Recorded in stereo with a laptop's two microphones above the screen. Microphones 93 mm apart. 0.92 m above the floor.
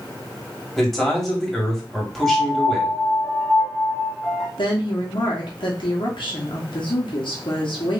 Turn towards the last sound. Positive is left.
turn(degrees=70)  # may be behind; listen again after turning